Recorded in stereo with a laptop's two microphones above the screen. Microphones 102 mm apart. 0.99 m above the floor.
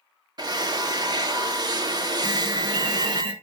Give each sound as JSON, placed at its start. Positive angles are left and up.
{"t": 0.4, "sound": "a drill", "side_deg": -40, "distance_m": 1.2}
{"t": 2.2, "sound": "an alarm", "side_deg": -55, "distance_m": 3.0}